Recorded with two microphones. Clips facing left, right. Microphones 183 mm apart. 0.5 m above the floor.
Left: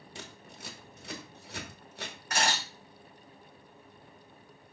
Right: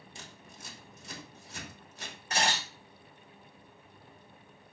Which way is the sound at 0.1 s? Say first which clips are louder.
Left 6 dB; 75° left (ahead or behind).